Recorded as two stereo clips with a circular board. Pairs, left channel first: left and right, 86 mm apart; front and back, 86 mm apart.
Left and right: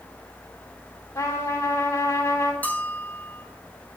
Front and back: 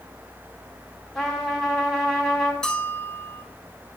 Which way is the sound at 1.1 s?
80° left.